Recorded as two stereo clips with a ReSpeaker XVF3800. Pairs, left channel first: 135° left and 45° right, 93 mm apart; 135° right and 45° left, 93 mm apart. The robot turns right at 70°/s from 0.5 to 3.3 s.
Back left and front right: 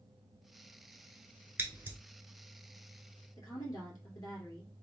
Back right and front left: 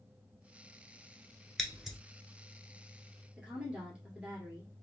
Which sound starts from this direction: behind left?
A woman speaking, at 3.4 s.